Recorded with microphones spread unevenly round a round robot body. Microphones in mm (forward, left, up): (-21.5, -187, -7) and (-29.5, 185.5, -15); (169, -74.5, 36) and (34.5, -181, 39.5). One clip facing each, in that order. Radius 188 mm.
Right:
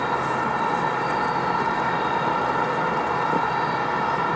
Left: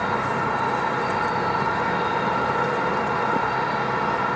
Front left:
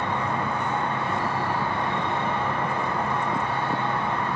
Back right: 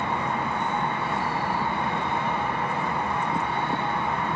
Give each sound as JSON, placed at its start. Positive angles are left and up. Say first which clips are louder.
{"t": 0.0, "sound": "an insect", "louder": "even, front left 1 dB", "azimuth_deg": 30, "distance_m": 0.8}